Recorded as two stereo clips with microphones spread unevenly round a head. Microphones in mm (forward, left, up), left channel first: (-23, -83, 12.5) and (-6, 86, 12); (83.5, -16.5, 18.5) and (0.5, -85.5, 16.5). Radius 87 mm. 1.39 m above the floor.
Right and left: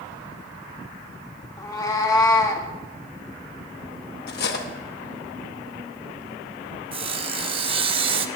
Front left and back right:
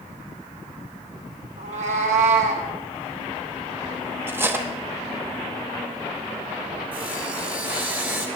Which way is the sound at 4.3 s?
70° right.